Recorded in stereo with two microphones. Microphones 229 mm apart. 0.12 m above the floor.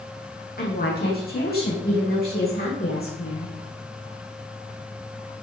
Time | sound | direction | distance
0.6 | a woman speaking | 40° left (ahead or behind) | 6 m